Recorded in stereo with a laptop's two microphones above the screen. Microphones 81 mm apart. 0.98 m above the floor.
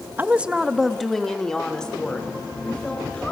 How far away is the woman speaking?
About 1.0 m.